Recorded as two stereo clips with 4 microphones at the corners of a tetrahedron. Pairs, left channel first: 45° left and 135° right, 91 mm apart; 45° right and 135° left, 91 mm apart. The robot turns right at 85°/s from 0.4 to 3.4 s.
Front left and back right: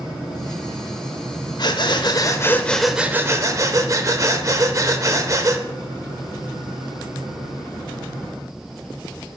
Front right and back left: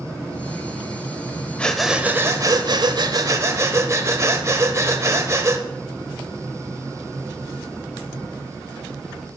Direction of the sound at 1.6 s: 25° left.